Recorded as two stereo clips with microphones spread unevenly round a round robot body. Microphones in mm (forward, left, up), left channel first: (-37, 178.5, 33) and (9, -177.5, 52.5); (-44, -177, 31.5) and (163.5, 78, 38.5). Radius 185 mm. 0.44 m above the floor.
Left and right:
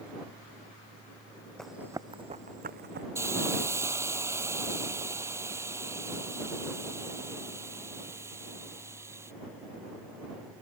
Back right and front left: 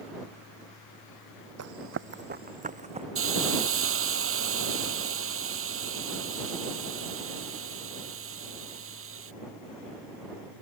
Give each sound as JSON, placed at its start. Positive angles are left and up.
{"t": 1.6, "sound": "running footsteps", "azimuth_deg": 10}
{"t": 3.1, "sound": "a hiss", "azimuth_deg": 0}